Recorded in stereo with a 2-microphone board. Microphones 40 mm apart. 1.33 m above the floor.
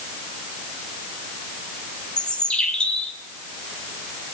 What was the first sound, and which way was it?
A bird, 20° left (ahead or behind).